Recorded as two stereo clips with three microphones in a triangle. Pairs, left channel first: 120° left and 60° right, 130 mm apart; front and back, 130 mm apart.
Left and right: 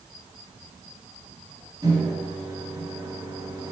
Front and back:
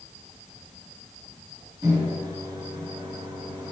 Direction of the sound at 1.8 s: 125° right.